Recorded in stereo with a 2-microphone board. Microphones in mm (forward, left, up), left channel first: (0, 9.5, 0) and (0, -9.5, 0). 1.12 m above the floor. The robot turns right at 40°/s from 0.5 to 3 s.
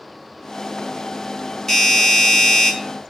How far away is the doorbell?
About 1.6 m.